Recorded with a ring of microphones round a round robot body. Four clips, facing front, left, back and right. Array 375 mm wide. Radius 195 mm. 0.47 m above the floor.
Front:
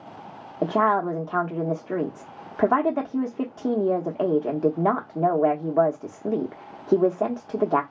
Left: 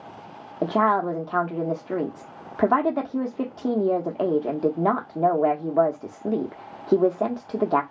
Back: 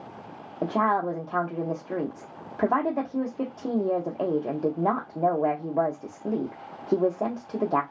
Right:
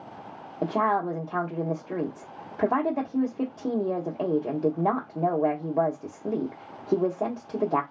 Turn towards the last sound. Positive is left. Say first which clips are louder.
# left 4 dB, front 3 dB
turn(degrees=45)